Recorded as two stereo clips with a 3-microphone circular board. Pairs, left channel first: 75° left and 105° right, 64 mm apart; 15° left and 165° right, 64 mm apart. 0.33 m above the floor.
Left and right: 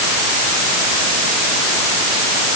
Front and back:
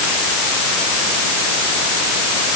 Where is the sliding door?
I don't hear a sliding door.